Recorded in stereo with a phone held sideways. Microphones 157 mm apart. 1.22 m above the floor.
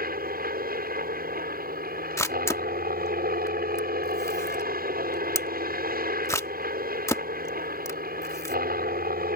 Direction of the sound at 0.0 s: 70° right (ahead or behind).